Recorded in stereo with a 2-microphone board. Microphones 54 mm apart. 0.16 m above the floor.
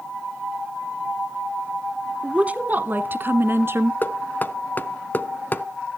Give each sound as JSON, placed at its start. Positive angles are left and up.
{"t": 2.2, "sound": "a woman speaking", "side_deg": -20, "distance_m": 1.1}
{"t": 4.0, "sound": "knocking", "side_deg": 35, "distance_m": 0.9}